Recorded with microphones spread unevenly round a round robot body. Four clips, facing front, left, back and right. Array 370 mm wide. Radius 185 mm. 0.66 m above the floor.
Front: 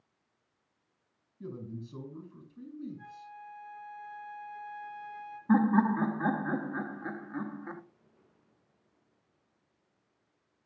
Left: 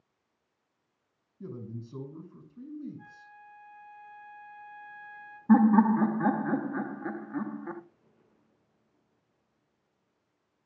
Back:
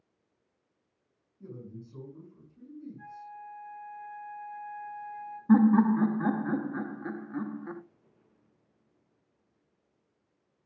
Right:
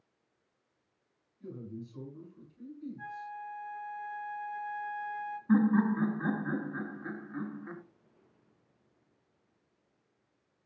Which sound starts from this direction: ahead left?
A man speaking, at 1.4 s.